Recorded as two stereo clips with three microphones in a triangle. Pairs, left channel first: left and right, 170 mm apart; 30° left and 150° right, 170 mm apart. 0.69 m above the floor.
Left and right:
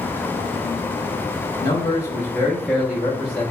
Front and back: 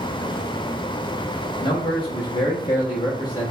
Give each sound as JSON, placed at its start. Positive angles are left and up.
{"t": 1.6, "sound": "a man speaking", "azimuth_deg": 65, "distance_m": 0.9}